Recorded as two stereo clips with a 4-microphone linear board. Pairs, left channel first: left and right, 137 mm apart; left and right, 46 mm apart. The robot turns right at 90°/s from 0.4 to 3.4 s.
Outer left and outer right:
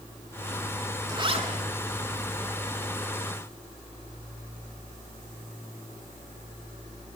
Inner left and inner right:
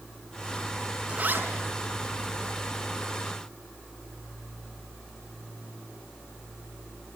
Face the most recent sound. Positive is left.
turn(degrees=55)